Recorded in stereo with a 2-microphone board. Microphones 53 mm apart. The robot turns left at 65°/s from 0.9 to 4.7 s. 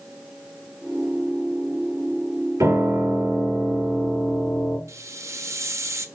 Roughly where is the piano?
Right.